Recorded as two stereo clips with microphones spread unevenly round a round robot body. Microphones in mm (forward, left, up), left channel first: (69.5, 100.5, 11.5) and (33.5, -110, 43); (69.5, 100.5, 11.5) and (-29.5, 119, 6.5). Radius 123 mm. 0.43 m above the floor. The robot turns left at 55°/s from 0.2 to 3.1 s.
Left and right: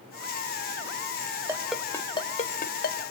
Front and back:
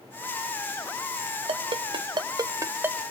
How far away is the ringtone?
About 1.2 m.